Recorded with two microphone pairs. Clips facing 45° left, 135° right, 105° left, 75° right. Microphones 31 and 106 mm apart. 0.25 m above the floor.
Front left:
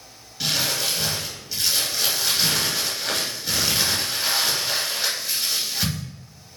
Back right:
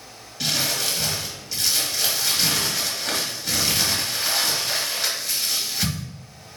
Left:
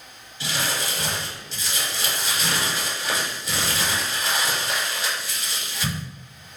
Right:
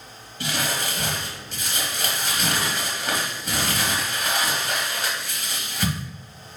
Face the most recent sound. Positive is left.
turn(degrees=-40)